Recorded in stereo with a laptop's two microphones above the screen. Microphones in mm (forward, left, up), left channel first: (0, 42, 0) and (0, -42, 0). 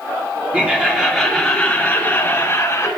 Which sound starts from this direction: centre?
Laughter, at 0.5 s.